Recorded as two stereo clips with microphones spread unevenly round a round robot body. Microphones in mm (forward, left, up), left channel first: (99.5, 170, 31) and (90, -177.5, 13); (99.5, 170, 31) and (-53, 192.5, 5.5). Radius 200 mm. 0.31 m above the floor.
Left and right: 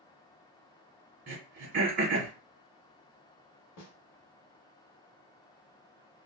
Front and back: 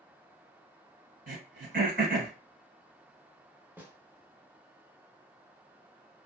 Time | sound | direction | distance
1.3 | throat clearing | 160° right | 1.0 m
3.8 | a snare drum | 110° left | 0.8 m